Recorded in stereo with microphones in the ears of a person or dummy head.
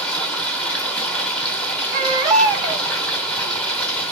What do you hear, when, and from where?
0.0 s running water: 5° left (ahead or behind), 1.1 m
1.9 s a baby crying: 25° right (ahead or behind), 1.9 m